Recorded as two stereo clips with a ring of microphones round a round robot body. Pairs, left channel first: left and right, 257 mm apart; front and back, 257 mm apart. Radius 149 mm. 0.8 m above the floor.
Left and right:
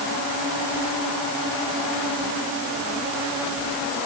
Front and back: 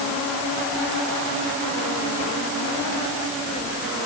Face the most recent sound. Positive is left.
No sound to turn to.